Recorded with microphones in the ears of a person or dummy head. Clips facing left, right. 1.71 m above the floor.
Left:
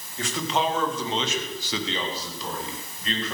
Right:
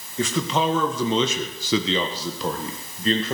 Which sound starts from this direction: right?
A man speaking, at 0.2 s.